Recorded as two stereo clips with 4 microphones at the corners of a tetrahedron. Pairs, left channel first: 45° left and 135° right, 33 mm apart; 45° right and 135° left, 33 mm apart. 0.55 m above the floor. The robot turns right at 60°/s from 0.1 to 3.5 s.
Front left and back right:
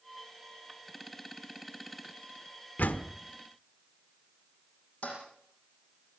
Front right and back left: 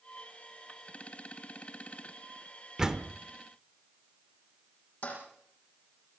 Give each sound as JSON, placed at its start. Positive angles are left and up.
{"t": 2.8, "sound": "a door slam", "azimuth_deg": 65, "distance_m": 1.1}
{"t": 5.0, "sound": "a toilet flushing", "azimuth_deg": -5, "distance_m": 9.5}